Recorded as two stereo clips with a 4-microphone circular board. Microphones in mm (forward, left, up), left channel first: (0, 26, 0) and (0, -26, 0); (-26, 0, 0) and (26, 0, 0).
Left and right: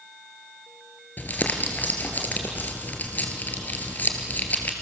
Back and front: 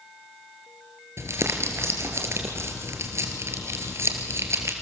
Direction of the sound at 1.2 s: 30° left.